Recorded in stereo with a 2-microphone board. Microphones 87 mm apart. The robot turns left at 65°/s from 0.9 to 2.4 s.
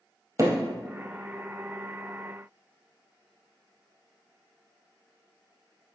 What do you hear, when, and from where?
0.4 s hammering: 35° right (ahead or behind), 2.5 m